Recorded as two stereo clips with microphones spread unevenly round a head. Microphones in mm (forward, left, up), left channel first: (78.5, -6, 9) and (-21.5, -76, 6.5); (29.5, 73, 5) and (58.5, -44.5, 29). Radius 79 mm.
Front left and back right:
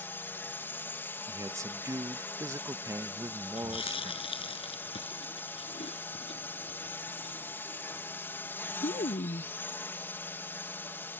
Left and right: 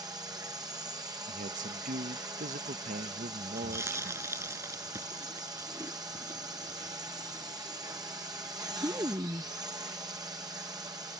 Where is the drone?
25° right.